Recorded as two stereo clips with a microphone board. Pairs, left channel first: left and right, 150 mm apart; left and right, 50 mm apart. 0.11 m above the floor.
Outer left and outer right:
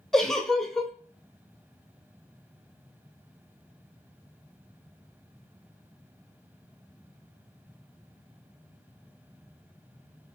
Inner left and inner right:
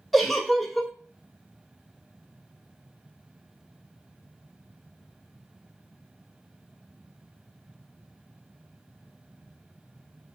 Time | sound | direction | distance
0.1 | a giggle | 5° left (ahead or behind) | 0.6 m